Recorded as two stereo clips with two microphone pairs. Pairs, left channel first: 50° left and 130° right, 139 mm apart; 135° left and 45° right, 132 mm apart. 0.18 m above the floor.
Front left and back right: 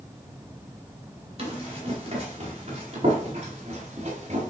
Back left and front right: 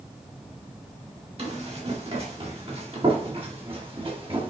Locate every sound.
1.4 s running footsteps: 85° right, 4.5 m; by 4.5 s 95° right, 3 m